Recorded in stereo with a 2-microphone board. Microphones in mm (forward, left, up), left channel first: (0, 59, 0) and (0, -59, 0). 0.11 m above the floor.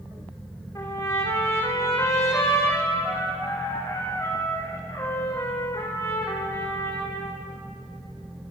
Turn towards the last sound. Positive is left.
turn(degrees=25)  # may be behind; listen again after turning